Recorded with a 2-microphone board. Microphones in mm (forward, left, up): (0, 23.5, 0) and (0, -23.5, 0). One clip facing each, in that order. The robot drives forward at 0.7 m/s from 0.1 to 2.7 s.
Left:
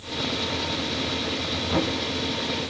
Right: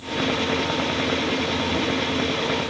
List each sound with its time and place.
1.7 s knocking: 35° left (ahead or behind), 4.5 m